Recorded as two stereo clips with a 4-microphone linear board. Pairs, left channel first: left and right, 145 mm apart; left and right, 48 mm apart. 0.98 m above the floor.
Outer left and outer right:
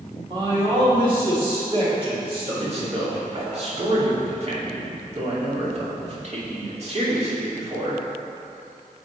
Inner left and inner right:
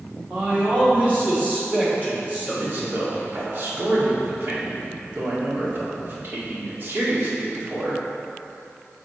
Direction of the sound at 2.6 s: 45° right (ahead or behind).